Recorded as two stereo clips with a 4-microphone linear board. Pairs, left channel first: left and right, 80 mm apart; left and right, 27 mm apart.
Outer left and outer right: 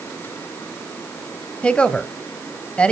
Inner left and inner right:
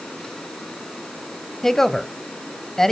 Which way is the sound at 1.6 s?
15° left (ahead or behind).